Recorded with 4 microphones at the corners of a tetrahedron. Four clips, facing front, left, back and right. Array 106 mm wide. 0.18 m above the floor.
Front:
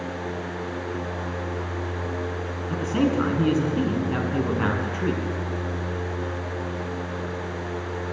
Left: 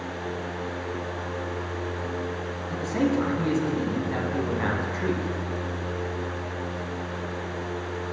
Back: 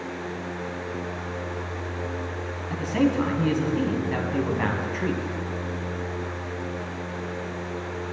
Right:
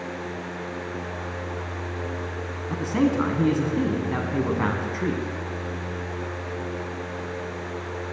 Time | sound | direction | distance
2.7 | a man speaking | 70° right | 1.8 m